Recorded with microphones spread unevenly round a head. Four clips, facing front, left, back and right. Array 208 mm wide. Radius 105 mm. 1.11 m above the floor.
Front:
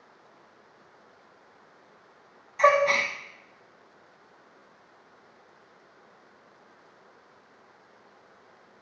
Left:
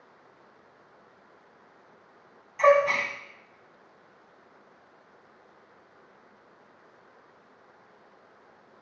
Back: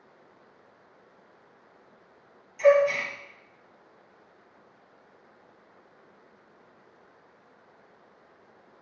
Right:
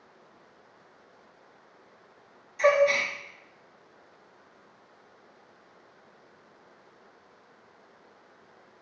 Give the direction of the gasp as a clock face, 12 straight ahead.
11 o'clock.